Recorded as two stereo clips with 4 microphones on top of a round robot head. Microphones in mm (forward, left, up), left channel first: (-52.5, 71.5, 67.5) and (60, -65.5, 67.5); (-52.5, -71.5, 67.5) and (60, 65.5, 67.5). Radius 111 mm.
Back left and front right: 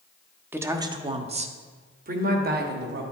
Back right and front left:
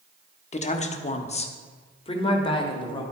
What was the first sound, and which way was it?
A woman speaking, 125° right.